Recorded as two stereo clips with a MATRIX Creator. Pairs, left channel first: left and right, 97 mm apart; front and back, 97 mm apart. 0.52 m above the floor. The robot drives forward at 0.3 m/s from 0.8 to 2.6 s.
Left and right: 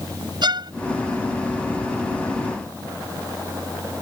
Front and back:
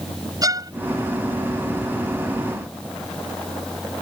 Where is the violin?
130° right.